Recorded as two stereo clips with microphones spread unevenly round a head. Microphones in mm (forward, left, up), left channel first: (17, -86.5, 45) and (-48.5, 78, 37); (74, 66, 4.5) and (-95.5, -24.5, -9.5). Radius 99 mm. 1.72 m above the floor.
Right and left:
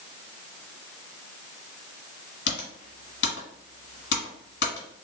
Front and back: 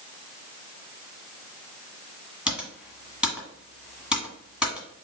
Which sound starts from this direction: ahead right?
Typing on a keyboard, at 2.5 s.